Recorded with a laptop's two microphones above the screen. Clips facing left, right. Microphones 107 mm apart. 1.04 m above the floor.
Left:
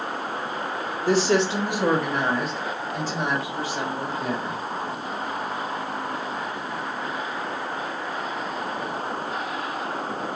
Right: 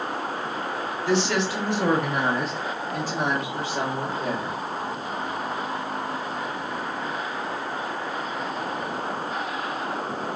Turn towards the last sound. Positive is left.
turn(degrees=-70)  # may be behind; listen again after turning